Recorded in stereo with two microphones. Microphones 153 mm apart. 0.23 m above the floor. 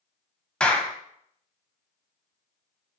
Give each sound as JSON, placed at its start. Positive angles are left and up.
{"t": 0.6, "sound": "a clap", "side_deg": 5, "distance_m": 0.8}